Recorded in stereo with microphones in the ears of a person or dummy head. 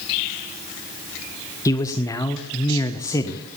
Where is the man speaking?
15° left (ahead or behind), 0.7 m.